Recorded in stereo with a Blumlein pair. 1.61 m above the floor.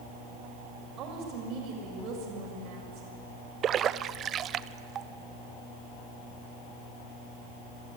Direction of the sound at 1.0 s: 35° right.